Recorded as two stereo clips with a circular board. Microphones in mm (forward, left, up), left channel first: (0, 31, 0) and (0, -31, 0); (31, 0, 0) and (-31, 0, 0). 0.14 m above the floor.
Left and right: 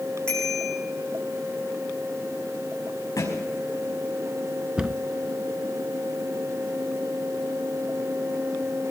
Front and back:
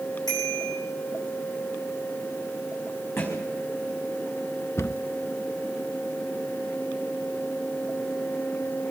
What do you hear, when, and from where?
0.3 s a bicycle bell: 15° left, 6 m
3.2 s a thud: 50° left, 5 m
4.8 s a cupboard door: 15° right, 0.6 m